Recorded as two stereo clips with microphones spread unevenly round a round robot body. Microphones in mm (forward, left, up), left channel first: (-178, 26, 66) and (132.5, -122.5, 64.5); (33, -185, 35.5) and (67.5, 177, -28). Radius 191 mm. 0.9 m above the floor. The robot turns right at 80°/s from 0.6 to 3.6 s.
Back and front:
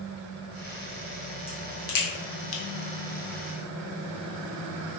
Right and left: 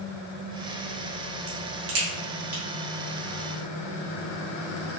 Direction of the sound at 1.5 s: 70° left.